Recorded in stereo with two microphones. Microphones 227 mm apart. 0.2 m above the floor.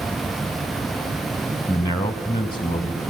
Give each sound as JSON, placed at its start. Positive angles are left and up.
{"t": 1.7, "sound": "a man speaking", "side_deg": 20, "distance_m": 1.1}